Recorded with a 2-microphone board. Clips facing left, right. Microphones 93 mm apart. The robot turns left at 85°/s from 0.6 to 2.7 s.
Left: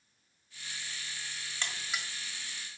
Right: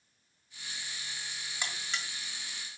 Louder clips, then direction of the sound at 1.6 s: Even; 15° right (ahead or behind).